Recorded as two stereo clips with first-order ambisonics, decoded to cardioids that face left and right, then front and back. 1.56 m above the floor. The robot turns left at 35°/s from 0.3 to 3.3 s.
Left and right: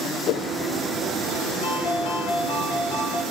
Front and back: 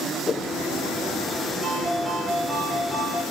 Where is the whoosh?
65° left, 0.6 m; by 0.5 s 55° left, 0.6 m.